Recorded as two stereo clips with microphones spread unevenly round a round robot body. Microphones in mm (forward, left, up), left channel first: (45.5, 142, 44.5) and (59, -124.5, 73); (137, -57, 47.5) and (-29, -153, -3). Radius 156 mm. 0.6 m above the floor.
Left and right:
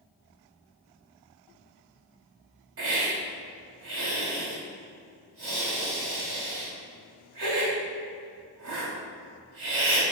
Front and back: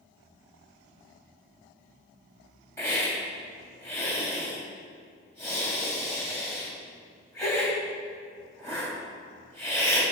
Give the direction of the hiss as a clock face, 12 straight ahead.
2 o'clock.